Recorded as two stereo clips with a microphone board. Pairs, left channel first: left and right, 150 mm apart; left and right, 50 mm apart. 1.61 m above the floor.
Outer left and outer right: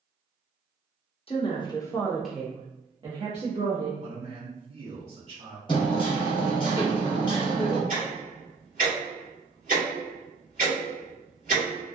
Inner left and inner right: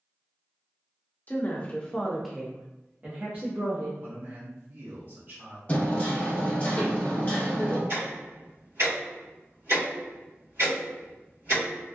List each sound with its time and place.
1.3 s a woman speaking: 40° left (ahead or behind), 0.7 m; by 3.9 s 45° right (ahead or behind), 1.1 m
4.0 s a man speaking: 45° right (ahead or behind), 1.4 m
5.7 s hammering: 30° left (ahead or behind), 1.1 m
7.9 s ticking: 65° right (ahead or behind), 1.7 m